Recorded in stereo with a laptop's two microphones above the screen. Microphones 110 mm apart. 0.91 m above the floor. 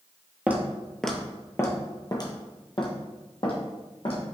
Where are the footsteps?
15° right (ahead or behind), 1.0 m; by 4.2 s 60° left (ahead or behind), 2 m.